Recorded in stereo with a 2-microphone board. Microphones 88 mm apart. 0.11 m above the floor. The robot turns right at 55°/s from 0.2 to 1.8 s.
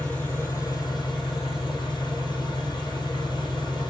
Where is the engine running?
25° left, 1.6 m; by 3.9 s 110° left, 1.6 m.